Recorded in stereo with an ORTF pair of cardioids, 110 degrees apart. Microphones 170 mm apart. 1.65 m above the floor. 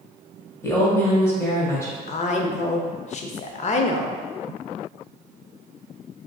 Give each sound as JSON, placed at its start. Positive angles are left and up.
{"t": 0.6, "sound": "a woman speaking", "azimuth_deg": 15, "distance_m": 1.1}
{"t": 2.1, "sound": "a woman speaking", "azimuth_deg": 45, "distance_m": 0.5}